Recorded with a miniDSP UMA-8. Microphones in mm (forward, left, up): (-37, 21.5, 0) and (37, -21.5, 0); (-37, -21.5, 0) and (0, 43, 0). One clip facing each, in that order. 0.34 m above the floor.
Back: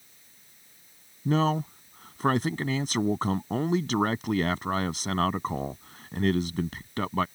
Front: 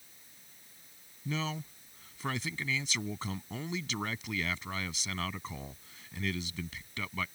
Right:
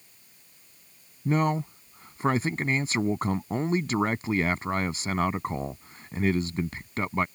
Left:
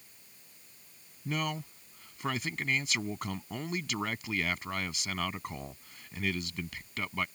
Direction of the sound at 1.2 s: 175° right.